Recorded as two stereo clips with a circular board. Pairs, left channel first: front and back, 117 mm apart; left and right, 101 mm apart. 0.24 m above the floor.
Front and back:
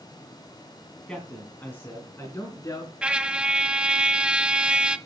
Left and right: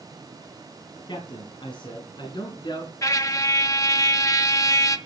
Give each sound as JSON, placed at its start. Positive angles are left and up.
{"t": 1.1, "sound": "a man speaking", "azimuth_deg": 85, "distance_m": 2.5}
{"t": 3.0, "sound": "a trumpet", "azimuth_deg": 105, "distance_m": 0.9}